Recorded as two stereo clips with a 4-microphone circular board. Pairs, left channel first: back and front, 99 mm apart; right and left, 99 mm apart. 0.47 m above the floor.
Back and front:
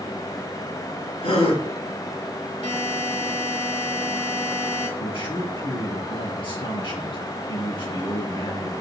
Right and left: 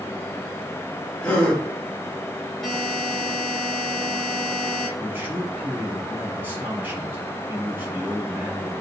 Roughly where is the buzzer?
Behind.